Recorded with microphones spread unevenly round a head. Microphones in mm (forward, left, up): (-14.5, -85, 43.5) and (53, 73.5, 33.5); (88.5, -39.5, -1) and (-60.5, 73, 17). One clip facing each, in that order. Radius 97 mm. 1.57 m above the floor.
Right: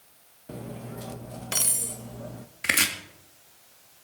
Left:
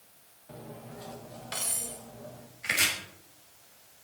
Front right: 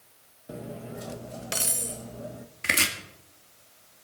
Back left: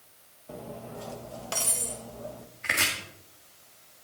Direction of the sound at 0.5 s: 105° right.